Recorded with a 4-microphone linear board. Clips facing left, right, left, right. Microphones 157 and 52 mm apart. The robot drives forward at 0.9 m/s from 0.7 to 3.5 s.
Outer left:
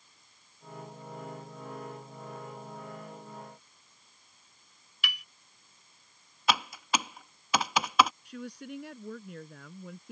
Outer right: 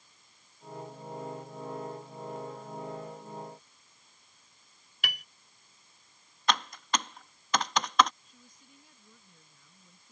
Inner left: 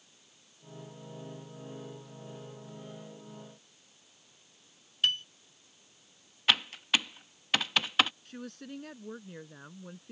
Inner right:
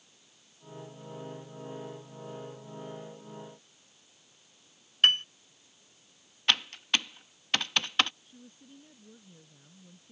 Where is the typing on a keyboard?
5° left (ahead or behind).